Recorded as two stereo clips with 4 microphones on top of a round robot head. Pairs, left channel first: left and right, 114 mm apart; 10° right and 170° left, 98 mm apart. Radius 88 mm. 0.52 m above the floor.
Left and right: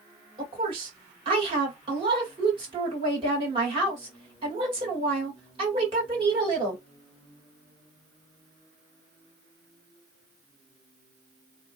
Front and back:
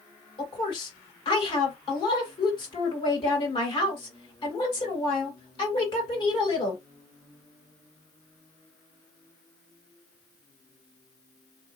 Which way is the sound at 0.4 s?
50° right.